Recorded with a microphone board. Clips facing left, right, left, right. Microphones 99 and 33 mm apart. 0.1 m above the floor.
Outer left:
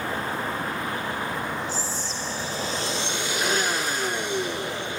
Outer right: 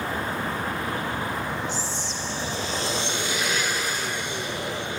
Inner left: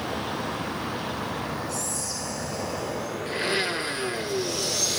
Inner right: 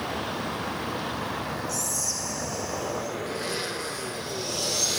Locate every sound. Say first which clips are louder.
1.7 s whispering: even, even; 35° left (ahead or behind), 4.5 m
3.3 s a blender: outer left 2 dB, inner left 5 dB; 40° left (ahead or behind), 0.9 m